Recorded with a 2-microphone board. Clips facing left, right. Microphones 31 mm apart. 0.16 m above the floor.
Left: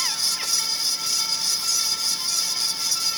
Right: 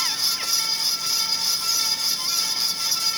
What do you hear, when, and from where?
Only background noise.